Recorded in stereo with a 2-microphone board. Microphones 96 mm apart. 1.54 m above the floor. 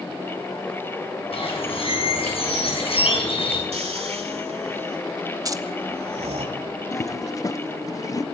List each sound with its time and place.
1.3 s a bird: 70° left (ahead or behind), 7.5 m
3.7 s snoring: 85° right, 2.5 m
5.5 s keys jangling: 35° right (ahead or behind), 1.1 m
6.9 s a toilet flushing: 35° left (ahead or behind), 0.9 m